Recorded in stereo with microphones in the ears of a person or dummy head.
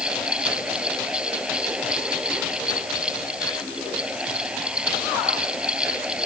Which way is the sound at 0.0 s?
5° right (ahead or behind).